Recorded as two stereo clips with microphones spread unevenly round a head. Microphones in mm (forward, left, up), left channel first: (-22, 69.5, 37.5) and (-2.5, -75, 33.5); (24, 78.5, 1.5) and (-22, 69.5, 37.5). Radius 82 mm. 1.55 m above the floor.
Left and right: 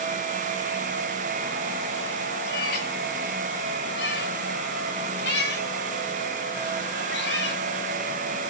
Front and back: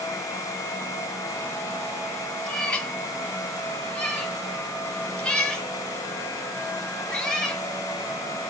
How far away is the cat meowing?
About 2.5 m.